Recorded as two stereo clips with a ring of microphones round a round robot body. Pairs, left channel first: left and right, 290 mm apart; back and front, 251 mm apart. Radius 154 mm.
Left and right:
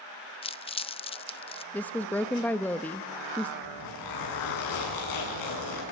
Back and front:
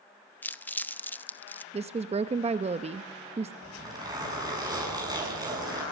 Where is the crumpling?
110° left, 0.7 m.